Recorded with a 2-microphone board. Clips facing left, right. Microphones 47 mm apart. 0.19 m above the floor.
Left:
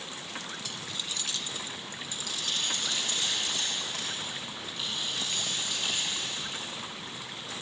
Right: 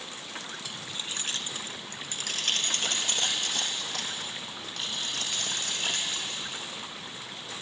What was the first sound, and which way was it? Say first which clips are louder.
Keys jangling: even; 10° right (ahead or behind).